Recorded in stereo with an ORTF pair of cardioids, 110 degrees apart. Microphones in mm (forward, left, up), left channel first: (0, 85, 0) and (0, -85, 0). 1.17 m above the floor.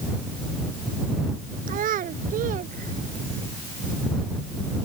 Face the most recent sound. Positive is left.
turn(degrees=-60)